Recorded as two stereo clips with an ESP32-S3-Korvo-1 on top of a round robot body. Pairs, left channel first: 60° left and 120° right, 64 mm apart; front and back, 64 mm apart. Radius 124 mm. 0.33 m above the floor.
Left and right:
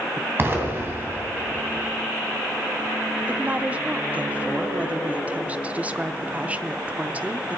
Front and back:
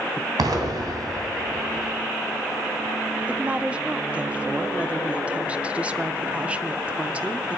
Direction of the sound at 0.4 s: 175° right.